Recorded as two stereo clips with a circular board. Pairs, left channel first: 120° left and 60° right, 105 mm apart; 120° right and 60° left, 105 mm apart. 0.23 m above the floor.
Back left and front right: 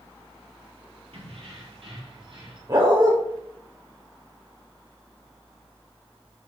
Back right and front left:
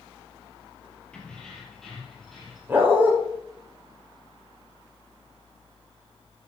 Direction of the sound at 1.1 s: 40° right.